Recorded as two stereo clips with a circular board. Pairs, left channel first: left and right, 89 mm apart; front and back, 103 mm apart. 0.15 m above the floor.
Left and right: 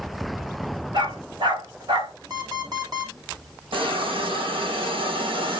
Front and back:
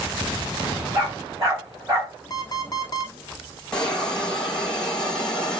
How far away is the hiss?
About 2.5 m.